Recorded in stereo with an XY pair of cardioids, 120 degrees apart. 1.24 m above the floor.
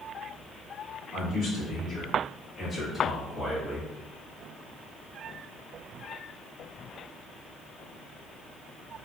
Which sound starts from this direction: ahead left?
A man speaking, at 1.1 s.